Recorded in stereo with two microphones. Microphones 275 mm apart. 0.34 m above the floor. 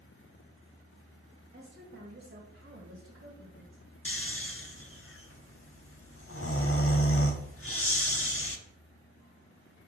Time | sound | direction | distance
1.5 | a woman speaking | 40° right (ahead or behind) | 1.7 m
4.0 | snoring | 50° left (ahead or behind) | 0.7 m